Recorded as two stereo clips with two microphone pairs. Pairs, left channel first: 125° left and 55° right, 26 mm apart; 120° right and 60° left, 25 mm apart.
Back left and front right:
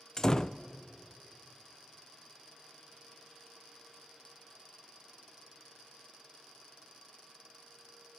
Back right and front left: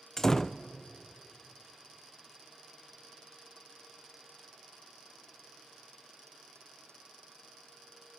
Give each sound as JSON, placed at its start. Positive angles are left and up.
{"t": 0.2, "sound": "a door slam", "azimuth_deg": 180, "distance_m": 0.5}